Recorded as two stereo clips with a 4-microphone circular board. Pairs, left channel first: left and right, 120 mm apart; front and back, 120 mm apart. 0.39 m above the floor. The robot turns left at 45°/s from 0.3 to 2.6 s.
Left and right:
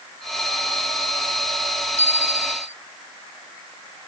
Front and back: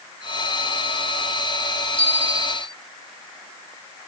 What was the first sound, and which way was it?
A bicycle bell, 115° left.